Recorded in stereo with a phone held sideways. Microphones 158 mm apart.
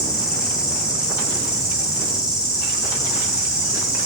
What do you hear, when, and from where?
0.0 s an insect: 20° left (ahead or behind), 4.5 m